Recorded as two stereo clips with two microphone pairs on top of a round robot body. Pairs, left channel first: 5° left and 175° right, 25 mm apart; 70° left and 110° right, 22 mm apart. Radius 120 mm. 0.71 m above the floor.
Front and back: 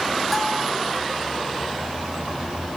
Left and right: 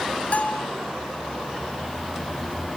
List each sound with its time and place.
0.3 s a bell: 95° left, 1.4 m